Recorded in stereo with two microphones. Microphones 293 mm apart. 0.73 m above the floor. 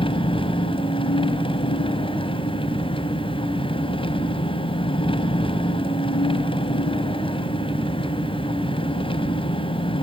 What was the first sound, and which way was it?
An engine running, 15° left (ahead or behind).